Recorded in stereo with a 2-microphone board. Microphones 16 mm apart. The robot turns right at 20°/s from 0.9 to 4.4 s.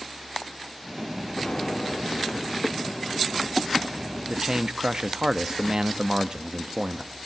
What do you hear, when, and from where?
1.4 s an explosion: 90° left, 2 m; by 3.2 s 130° left, 2 m
4.3 s a man speaking: 45° right (ahead or behind), 1.0 m